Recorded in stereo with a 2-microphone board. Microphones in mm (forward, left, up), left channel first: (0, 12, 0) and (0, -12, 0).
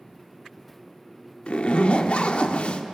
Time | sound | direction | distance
1.5 | a zipper | 55° left (ahead or behind) | 0.6 m